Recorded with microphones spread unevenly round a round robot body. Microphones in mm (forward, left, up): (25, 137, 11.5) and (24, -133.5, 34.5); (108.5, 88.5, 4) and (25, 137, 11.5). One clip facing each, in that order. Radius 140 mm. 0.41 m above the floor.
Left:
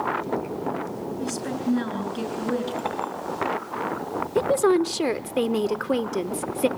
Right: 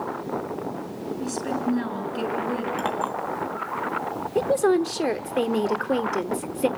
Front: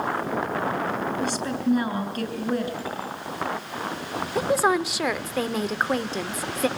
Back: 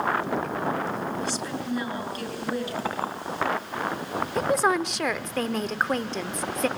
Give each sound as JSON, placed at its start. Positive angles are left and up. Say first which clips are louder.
{"t": 1.2, "sound": "a woman speaking", "louder": "right 1 dB, front 5 dB", "azimuth_deg": 5, "distance_m": 7.0}
{"t": 2.8, "sound": "a clink", "louder": "right 2 dB, back 2 dB", "azimuth_deg": -155, "distance_m": 3.0}
{"t": 4.3, "sound": "a woman speaking", "louder": "left 1 dB, front 2 dB", "azimuth_deg": 35, "distance_m": 1.0}